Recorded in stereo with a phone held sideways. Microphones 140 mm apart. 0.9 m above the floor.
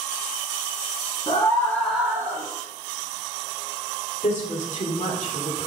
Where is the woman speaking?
60° left (ahead or behind), 2.5 m.